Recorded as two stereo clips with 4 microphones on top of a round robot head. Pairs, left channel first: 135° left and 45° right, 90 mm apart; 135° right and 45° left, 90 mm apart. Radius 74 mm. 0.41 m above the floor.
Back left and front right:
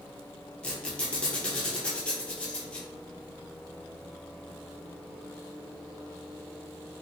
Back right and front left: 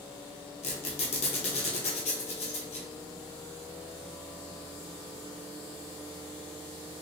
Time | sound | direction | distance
0.6 | a squeak | 140° right | 1.1 m